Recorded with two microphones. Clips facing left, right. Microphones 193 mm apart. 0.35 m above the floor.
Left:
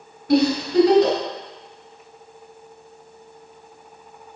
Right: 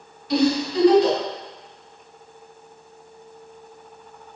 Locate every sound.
0.3 s a giggle: 65° left (ahead or behind), 3 m